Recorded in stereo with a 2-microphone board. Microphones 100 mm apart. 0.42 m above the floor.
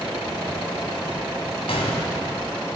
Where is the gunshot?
70° left (ahead or behind), 1.9 m.